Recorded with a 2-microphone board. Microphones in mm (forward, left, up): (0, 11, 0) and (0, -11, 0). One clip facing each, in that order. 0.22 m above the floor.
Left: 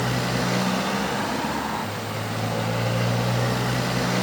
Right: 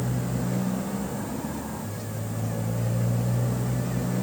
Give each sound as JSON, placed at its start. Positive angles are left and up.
{"t": 0.0, "sound": "a motorcycle", "side_deg": 75}